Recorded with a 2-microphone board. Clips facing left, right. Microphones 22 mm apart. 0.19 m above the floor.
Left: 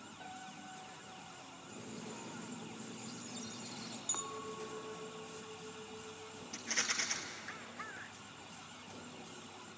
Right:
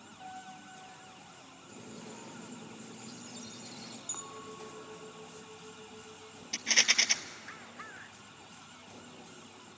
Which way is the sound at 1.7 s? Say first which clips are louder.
Right 1 dB; 10° right (ahead or behind).